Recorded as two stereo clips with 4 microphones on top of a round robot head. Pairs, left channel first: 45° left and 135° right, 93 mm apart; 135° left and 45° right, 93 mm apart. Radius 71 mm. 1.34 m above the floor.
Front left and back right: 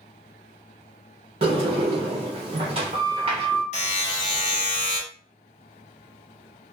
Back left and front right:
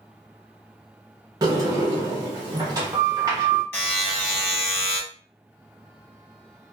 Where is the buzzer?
65° left, 1.0 m.